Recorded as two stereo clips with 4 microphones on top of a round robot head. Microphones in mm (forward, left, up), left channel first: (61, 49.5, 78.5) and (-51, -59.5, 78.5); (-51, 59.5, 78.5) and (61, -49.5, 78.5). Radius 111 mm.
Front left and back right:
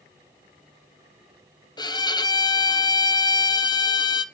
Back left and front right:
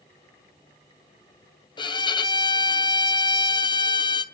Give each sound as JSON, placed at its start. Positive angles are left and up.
{"t": 1.8, "sound": "a violin", "azimuth_deg": 95, "distance_m": 1.1}